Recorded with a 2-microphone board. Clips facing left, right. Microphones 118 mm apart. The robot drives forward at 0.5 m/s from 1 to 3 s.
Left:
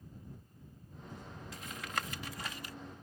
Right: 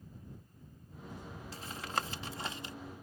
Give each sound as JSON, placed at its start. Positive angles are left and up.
{"t": 1.5, "sound": "tapping", "side_deg": -30}